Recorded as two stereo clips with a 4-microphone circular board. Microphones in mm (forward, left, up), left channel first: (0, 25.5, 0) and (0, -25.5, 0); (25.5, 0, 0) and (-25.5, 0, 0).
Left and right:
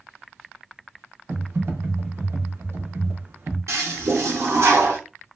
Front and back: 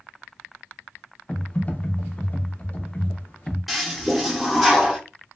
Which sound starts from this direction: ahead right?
Typing on a keyboard, at 1.3 s.